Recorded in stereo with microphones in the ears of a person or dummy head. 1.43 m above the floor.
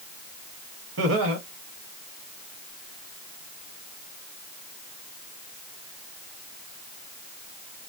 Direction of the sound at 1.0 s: 80° right.